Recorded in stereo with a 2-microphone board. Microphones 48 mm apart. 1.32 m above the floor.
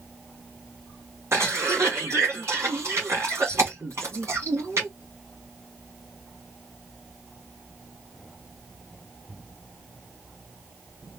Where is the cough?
70° right (ahead or behind), 2.5 m.